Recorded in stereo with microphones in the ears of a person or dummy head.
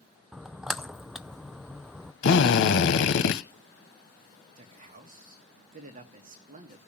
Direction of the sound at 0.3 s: Centre (ahead or behind).